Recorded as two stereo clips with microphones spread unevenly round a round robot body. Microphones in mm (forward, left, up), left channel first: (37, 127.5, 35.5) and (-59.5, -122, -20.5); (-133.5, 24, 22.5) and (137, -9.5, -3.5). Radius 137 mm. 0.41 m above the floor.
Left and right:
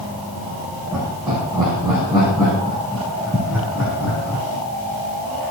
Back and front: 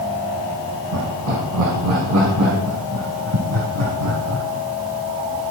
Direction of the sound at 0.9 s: 30° right.